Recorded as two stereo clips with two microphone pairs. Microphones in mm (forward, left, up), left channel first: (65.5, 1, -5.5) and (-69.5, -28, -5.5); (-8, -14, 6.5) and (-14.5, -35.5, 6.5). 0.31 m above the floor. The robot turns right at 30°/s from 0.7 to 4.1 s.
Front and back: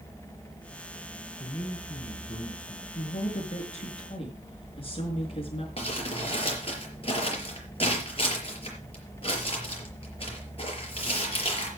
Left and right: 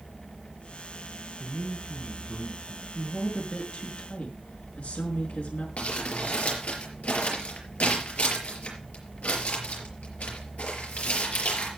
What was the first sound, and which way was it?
A man speaking, 15° right.